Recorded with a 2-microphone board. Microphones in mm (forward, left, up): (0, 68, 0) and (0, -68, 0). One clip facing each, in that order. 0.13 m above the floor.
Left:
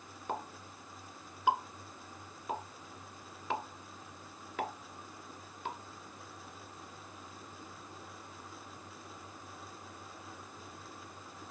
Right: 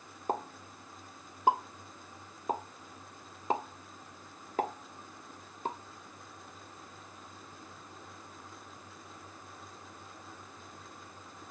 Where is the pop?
40° right (ahead or behind), 0.8 m.